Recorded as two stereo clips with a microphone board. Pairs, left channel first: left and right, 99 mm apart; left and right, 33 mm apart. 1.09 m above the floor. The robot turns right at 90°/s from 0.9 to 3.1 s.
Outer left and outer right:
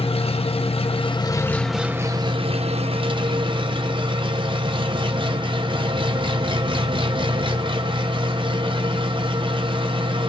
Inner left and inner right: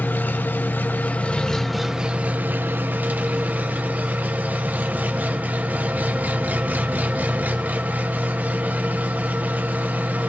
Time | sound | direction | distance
0.0 | an engine running | 105° left | 1.1 m